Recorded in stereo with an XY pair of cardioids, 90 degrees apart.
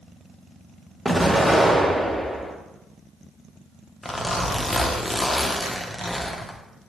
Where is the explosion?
Straight ahead, 0.7 m.